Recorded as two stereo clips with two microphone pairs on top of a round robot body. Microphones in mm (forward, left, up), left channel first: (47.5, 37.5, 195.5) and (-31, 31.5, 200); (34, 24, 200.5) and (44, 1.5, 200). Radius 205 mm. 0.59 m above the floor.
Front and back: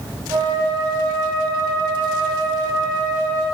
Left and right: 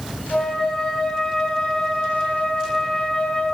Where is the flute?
160° left, 5.5 m.